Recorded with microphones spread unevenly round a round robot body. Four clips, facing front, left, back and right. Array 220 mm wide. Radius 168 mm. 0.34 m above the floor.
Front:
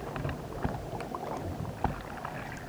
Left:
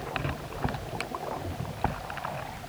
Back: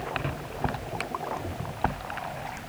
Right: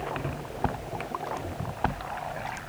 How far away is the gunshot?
I don't hear a gunshot.